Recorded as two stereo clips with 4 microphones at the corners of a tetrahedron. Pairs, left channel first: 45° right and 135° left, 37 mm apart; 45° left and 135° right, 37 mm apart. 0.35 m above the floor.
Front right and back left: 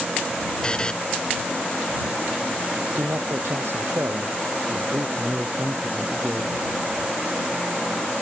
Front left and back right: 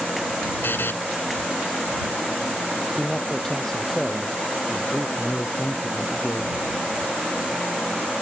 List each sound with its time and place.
0.6 s a buzzer: 25° left
3.0 s a man speaking: 125° left
5.2 s a man speaking: 85° left